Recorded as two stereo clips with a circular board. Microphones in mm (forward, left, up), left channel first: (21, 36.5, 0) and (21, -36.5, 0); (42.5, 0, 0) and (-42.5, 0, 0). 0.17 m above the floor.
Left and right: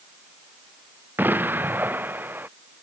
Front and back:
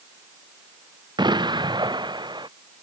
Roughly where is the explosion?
Behind right.